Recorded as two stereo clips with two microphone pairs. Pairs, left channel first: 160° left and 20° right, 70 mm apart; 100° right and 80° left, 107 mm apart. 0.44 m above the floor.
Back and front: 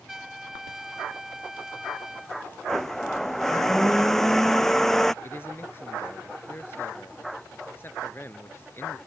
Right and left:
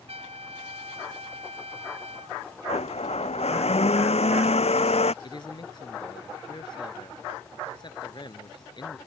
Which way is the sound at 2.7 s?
120° right.